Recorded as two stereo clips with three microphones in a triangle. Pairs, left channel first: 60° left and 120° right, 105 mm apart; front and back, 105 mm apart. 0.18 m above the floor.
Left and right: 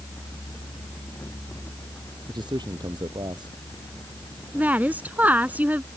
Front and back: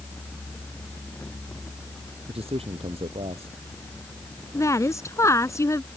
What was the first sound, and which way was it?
A man speaking, 165° right.